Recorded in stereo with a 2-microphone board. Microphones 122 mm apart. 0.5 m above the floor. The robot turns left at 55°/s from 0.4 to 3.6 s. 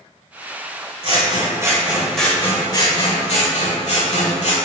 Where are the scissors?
120° right, 1.5 m; by 4.5 s 95° left, 1.5 m.